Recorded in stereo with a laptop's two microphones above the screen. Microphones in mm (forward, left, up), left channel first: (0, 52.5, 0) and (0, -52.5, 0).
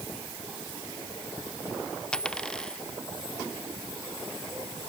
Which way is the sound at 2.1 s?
10° left (ahead or behind).